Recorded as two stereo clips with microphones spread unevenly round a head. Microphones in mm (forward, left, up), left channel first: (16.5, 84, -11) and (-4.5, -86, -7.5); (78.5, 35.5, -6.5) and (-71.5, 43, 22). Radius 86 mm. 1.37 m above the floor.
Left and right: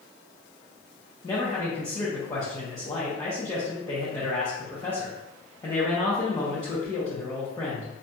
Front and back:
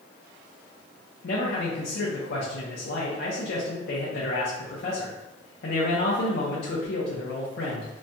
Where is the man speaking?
15° left, 0.7 m.